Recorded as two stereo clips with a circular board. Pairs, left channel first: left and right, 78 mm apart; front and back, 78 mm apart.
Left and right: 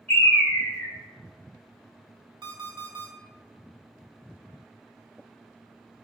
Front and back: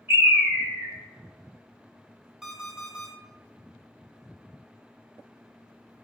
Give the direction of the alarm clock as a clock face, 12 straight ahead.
3 o'clock.